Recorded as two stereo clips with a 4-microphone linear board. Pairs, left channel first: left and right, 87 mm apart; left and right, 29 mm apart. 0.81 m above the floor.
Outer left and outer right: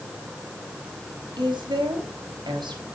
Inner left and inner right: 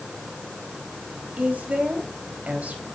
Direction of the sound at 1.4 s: 65° right (ahead or behind).